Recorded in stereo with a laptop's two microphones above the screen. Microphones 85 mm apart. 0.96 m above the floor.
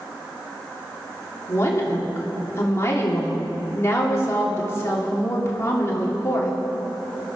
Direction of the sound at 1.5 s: 35° left (ahead or behind).